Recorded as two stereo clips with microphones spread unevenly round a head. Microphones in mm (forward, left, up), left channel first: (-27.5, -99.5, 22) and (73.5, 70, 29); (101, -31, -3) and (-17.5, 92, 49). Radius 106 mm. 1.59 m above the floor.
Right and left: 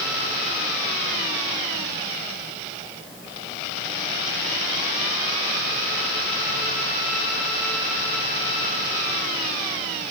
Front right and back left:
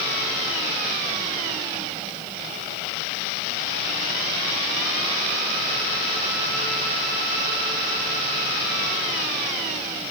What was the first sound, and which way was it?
Only background noise.